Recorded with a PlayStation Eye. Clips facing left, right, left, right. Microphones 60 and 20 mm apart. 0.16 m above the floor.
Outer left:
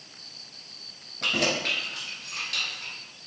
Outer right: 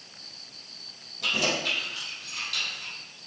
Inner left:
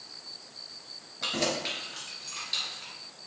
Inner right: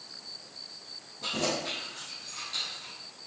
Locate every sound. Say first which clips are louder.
1.2 s keys jangling: outer left 1 dB, inner left 1 dB; 55° left (ahead or behind), 1.7 m; by 2.9 s 50° left (ahead or behind), 3 m